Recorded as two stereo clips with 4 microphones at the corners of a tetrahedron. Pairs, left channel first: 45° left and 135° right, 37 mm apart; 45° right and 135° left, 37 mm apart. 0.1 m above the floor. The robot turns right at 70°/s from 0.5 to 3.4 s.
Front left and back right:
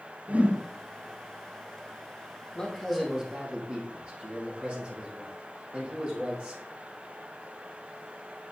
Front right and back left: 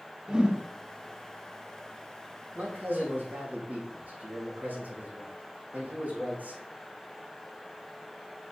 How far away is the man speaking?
About 4 m.